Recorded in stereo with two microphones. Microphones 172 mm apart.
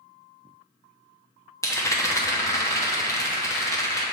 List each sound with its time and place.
1.6 s a rattle: 15° left (ahead or behind), 1.1 m